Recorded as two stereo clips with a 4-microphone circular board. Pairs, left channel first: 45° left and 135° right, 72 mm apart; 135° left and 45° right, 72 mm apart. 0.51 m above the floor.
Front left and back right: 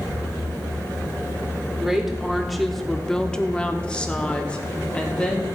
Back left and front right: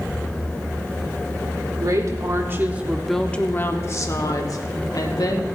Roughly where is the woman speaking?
Ahead right.